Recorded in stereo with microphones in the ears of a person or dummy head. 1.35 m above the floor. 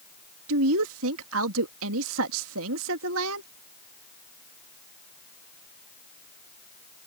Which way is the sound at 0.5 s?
70° right (ahead or behind).